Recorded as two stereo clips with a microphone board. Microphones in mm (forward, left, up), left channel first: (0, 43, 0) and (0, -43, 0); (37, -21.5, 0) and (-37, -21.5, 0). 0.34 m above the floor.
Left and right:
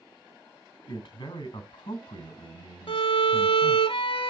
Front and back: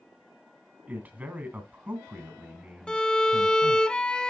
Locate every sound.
0.9 s a man speaking: 115° left, 2 m
2.9 s a violin: 80° left, 0.6 m